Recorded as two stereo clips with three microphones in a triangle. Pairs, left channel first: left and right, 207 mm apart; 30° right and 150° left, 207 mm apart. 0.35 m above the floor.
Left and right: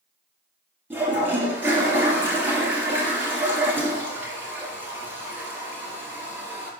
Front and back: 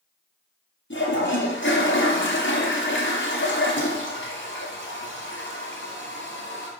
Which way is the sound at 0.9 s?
10° right.